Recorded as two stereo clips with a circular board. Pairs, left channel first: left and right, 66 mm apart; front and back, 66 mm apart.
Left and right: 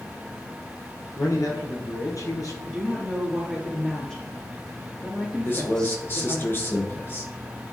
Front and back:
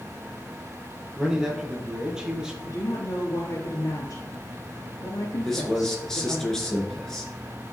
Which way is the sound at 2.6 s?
10° left.